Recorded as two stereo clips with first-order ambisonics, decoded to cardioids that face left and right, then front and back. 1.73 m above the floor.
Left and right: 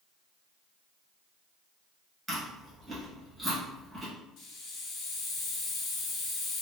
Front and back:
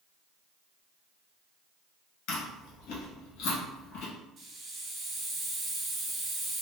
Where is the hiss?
125° left, 1.0 m.